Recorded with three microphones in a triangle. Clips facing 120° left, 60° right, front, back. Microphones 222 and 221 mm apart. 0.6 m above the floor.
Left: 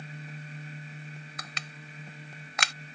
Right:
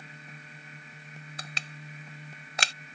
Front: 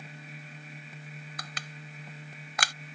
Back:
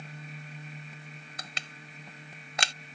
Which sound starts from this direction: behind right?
Crushing, at 1.4 s.